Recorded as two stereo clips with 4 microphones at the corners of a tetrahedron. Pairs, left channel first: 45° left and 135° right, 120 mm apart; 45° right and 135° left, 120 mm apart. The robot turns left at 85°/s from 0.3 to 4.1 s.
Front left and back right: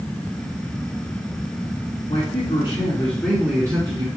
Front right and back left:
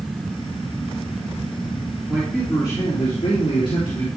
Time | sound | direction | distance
2.1 | a man speaking | 55° left | 2.5 m